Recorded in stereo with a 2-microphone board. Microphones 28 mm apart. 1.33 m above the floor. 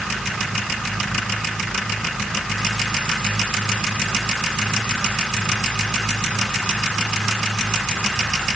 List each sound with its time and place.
Only background noise.